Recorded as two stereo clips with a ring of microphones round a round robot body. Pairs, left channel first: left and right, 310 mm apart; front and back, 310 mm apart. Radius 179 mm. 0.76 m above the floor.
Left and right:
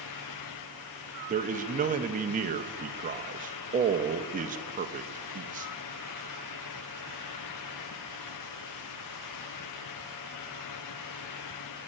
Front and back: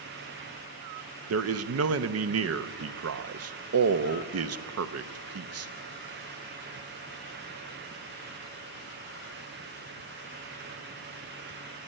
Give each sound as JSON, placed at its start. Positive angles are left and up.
{"t": 1.3, "sound": "a man speaking", "azimuth_deg": -150, "distance_m": 0.8}